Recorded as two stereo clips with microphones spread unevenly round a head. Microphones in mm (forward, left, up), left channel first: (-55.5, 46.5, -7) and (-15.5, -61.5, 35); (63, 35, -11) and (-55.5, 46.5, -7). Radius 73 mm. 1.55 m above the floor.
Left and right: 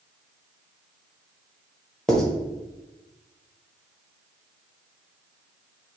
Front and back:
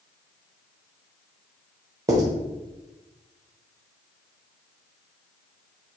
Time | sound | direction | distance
2.1 | writing | 145° right | 0.9 m